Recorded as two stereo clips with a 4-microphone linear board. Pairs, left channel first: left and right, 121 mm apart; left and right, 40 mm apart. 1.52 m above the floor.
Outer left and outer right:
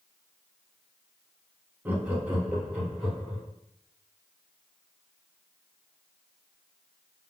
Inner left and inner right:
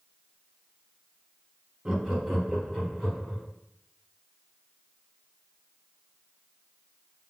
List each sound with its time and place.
1.9 s laughter: 15° right (ahead or behind), 0.8 m; by 3.4 s 5° right (ahead or behind), 3.5 m